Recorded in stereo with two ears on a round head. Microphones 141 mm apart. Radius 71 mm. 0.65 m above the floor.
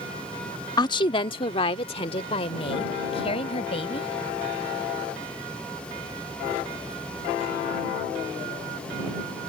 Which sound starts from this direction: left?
A woman speaking, at 0.8 s.